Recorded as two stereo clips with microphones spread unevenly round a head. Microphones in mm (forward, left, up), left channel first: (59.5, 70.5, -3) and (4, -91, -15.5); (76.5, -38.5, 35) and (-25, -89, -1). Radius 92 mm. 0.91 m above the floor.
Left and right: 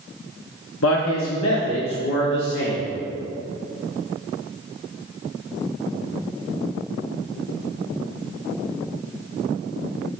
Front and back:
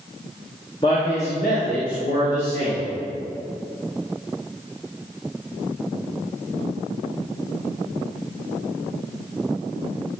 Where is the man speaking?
95° left, 1.0 m; by 2.9 s 55° left, 2.5 m.